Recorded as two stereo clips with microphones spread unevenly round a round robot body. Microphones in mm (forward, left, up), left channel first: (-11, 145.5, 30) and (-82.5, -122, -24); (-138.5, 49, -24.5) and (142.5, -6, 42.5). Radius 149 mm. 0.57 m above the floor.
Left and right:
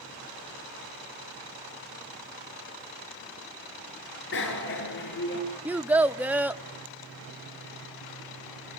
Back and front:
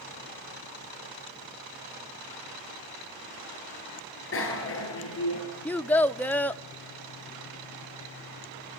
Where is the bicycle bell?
120° left, 7 m; by 5.4 s 125° left, 8.5 m.